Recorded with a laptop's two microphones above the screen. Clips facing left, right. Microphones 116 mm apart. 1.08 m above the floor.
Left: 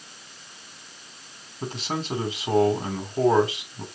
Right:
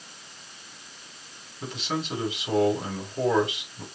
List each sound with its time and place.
1.6 s a man speaking: 35° left (ahead or behind), 3 m